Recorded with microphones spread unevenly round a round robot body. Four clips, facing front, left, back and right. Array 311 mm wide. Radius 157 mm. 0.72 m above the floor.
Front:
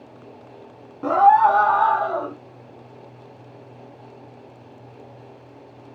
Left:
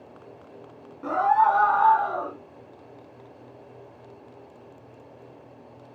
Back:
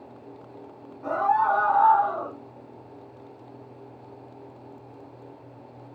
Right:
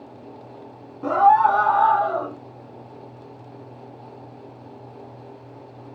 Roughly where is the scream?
Ahead right.